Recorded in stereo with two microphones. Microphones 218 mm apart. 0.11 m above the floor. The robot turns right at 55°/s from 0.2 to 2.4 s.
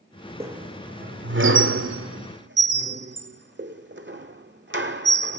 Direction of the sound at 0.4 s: 10° right (ahead or behind).